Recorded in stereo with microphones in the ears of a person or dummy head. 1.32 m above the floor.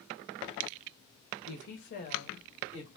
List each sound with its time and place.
1.5 s a woman speaking: 75° left (ahead or behind), 1.0 m; by 2.9 s 30° left (ahead or behind), 2.5 m